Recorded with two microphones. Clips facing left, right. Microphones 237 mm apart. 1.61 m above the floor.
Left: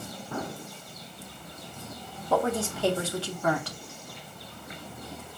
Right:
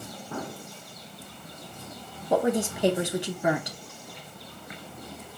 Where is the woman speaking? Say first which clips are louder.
Right 3 dB; 15° right (ahead or behind), 0.6 m.